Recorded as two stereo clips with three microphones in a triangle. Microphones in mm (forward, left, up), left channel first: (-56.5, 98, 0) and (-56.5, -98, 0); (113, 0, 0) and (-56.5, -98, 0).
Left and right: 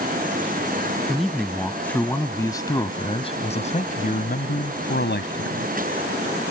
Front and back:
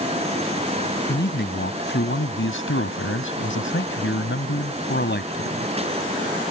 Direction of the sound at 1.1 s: Straight ahead.